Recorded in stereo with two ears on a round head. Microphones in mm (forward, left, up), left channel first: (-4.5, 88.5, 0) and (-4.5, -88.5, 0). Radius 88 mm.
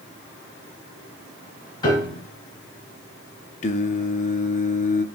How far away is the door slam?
I don't hear a door slam.